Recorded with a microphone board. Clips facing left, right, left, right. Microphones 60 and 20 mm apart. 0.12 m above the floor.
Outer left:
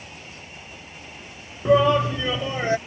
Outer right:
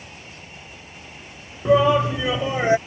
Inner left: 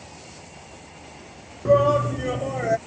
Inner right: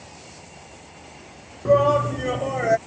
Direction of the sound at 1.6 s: Centre (ahead or behind).